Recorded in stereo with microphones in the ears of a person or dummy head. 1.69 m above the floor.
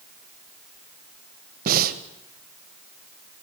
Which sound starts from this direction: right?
Breathing, at 1.6 s.